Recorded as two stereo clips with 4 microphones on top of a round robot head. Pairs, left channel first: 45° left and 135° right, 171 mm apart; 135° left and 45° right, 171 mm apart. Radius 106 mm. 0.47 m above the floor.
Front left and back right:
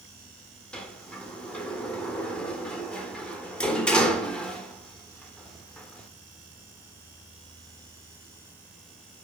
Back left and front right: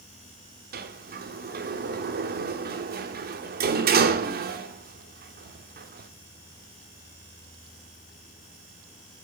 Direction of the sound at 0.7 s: 35° right.